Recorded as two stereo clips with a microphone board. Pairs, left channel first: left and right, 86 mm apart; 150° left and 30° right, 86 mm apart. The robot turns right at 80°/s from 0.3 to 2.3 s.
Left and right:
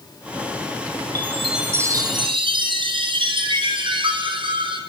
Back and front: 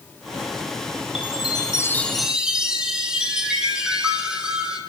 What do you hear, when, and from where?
1.1 s a chime: 155° left, 5 m; by 4.8 s 110° right, 5 m